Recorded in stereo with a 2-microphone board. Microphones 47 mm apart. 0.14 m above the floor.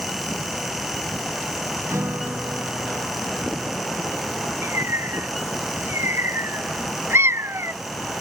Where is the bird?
65° right (ahead or behind).